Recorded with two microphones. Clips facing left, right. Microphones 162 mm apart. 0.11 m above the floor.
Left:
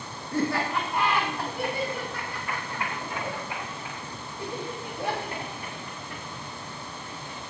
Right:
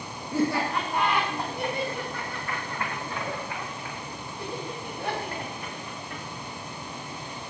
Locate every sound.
0.3 s laughter: 5° right (ahead or behind), 6 m; by 6.2 s 30° left (ahead or behind), 8.5 m